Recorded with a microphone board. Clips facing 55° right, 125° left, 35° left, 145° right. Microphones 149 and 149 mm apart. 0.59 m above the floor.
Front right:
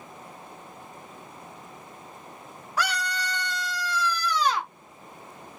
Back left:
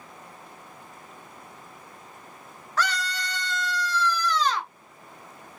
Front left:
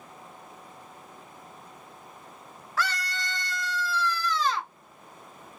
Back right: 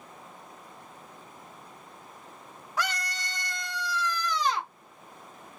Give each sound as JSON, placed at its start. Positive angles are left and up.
{"t": 2.8, "sound": "a scream", "azimuth_deg": -110, "distance_m": 0.6}